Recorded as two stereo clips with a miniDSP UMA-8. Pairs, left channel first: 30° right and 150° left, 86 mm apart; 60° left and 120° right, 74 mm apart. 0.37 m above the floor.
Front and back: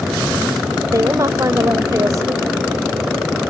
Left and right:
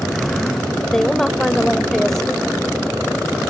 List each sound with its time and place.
0.8 s a woman speaking: 140° left